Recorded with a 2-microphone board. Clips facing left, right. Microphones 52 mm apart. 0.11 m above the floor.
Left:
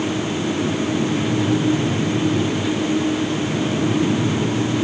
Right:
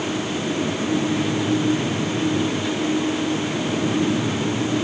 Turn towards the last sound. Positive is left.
No sound to turn to.